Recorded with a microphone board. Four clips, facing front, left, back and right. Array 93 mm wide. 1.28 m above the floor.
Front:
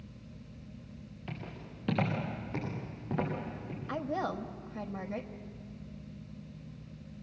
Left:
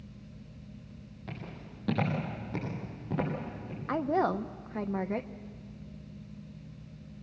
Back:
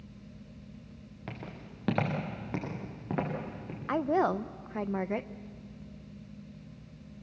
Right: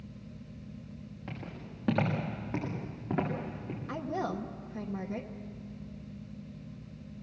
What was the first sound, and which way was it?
Footsteps, 165° right.